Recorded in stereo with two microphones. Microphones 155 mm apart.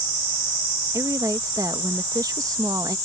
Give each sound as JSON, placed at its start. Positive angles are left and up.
{"t": 0.9, "sound": "a woman speaking", "side_deg": -25}